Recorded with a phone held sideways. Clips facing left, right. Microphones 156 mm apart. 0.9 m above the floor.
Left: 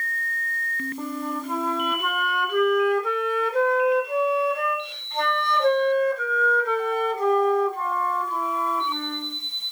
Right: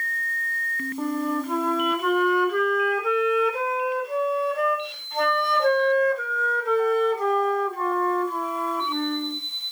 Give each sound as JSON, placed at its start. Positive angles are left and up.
{"t": 1.0, "sound": "a flute", "side_deg": 0, "distance_m": 0.7}